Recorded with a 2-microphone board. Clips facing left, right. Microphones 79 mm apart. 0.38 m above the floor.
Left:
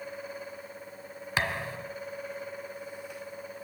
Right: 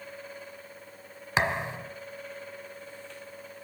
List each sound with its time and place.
1.4 s a thud: 20° right (ahead or behind), 1.0 m